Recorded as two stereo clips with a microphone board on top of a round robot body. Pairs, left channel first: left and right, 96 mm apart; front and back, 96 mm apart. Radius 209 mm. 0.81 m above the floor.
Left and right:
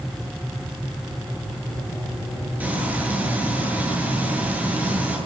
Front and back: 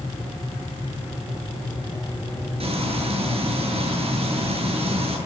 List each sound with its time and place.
2.6 s frying: 165° right, 9 m